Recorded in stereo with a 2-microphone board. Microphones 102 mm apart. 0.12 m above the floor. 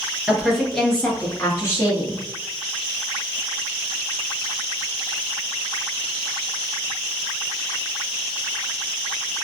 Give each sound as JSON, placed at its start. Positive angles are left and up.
{"t": 0.3, "sound": "a woman speaking", "side_deg": -5, "distance_m": 1.6}